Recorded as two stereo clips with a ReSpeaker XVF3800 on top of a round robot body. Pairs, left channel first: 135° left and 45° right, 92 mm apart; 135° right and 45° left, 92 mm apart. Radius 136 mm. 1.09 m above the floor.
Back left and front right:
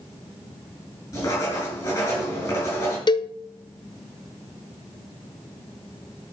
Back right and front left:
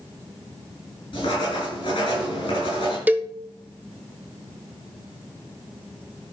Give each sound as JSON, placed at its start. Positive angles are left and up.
{"t": 1.1, "sound": "writing", "azimuth_deg": -170, "distance_m": 6.5}
{"t": 3.1, "sound": "a cowbell", "azimuth_deg": 115, "distance_m": 0.8}